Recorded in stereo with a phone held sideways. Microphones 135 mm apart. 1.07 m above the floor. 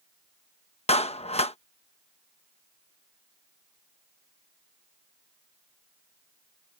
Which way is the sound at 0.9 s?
50° left (ahead or behind).